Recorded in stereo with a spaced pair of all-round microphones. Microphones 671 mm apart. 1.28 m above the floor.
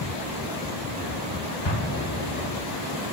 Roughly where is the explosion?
Left.